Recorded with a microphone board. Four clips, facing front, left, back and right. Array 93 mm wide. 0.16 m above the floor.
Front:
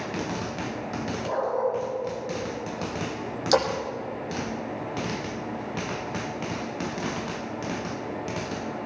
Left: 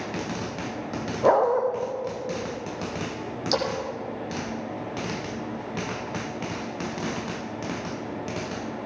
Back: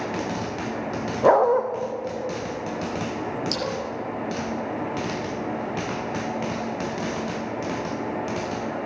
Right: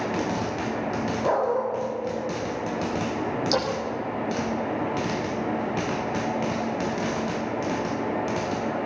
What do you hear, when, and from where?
1.2 s a dog barking: 155° left, 3 m
3.5 s a splash: straight ahead, 4.5 m